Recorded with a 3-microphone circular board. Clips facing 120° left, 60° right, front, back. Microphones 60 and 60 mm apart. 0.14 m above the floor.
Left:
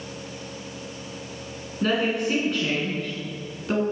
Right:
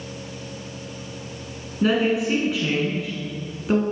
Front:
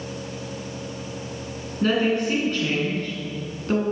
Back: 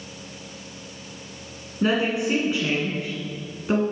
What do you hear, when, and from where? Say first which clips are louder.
1.8 s a woman speaking: right 3 dB, front 1 dB; 130° right, 1.5 m